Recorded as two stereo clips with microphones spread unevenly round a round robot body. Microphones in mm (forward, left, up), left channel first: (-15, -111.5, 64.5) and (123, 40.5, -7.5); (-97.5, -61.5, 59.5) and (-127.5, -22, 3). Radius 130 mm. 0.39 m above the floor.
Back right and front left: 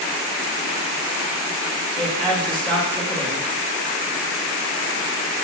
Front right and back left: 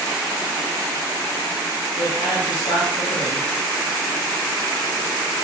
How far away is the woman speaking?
About 2 m.